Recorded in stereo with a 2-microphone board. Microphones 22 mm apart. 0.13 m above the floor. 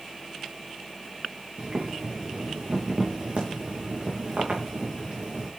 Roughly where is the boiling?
Right.